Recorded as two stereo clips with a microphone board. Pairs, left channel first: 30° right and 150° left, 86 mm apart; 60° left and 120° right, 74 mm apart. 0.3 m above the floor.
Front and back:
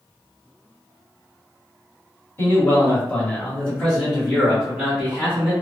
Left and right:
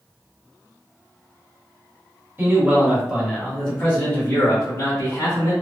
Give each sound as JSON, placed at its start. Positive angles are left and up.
{"t": 2.4, "sound": "a man speaking", "azimuth_deg": -75, "distance_m": 1.4}